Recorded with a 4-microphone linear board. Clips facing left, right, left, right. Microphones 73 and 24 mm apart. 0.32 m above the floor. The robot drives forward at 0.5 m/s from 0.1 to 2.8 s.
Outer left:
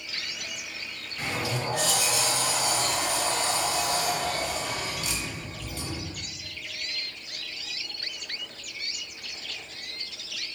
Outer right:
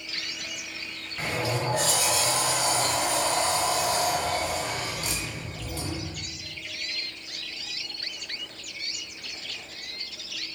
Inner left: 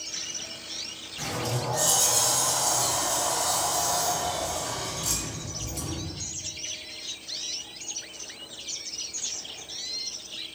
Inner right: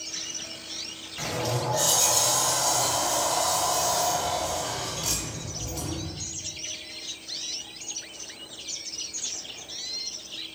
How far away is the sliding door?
About 1.0 m.